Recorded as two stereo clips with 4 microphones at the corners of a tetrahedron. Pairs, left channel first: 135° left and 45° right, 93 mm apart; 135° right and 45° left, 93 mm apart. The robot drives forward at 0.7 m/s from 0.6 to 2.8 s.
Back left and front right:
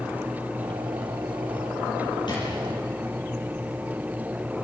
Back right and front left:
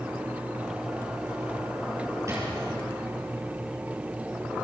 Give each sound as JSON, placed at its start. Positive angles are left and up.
{"t": 2.3, "sound": "a drawer", "azimuth_deg": 100, "distance_m": 8.5}